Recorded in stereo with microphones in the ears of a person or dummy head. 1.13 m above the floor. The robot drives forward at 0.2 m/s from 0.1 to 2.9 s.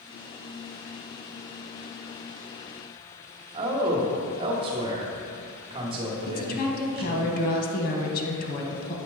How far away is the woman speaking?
About 1.0 m.